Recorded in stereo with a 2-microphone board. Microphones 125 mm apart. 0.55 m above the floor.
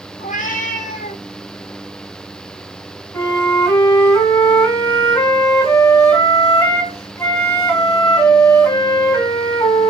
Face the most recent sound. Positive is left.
turn(degrees=20)  # may be behind; listen again after turning